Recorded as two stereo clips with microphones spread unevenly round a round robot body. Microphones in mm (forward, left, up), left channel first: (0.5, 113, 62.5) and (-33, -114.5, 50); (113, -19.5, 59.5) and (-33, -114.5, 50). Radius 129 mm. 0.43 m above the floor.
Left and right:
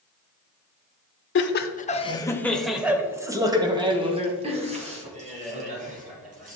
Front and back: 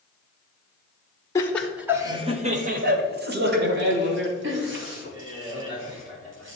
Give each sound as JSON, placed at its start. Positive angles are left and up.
{"t": 1.4, "sound": "laughter", "azimuth_deg": 105, "distance_m": 1.1}